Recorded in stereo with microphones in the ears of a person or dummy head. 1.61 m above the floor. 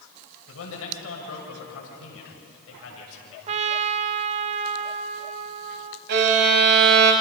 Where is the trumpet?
35° right (ahead or behind), 0.6 m.